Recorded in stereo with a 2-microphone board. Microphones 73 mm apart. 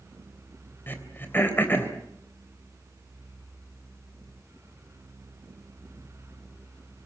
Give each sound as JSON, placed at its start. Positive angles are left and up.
{"t": 0.9, "sound": "throat clearing", "side_deg": 30, "distance_m": 3.5}